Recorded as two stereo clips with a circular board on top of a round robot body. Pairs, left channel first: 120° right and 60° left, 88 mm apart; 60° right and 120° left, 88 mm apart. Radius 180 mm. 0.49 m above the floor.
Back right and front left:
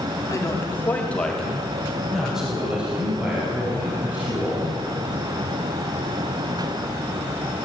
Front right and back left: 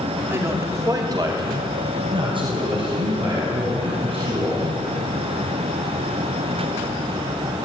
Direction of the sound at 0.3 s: 175° right.